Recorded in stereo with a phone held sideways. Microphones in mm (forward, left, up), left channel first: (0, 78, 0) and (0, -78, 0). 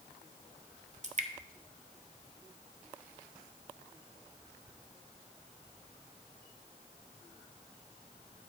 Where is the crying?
No crying in this recording.